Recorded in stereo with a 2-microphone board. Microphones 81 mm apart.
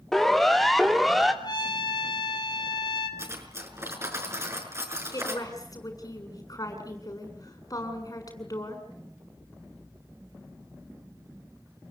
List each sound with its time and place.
0.1 s a siren: 5° left (ahead or behind), 2.5 m; by 1.3 s centre (ahead or behind), 3 m
1.4 s a trumpet: 65° left (ahead or behind), 4 m
3.2 s cutlery clinking: 35° right (ahead or behind), 6 m
5.1 s a woman speaking: 50° left (ahead or behind), 7 m